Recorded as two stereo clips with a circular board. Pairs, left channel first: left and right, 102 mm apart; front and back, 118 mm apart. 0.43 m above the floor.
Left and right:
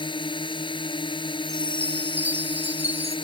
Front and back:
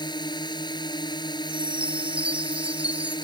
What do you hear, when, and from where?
0.0 s a drone: 50° left
1.4 s a chime: 100° right